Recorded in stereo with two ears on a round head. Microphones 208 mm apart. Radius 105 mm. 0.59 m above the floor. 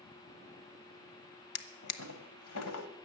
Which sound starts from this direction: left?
A drawer, at 1.6 s.